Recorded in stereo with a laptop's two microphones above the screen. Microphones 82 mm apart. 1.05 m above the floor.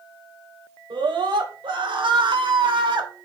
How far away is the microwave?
No microwave in this recording.